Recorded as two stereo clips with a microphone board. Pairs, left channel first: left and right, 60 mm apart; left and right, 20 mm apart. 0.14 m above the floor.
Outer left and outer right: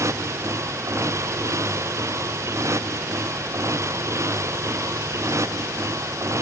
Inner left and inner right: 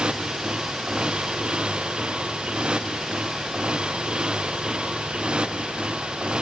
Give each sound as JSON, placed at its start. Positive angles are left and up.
{"t": 0.0, "sound": "a motorcycle", "side_deg": -55}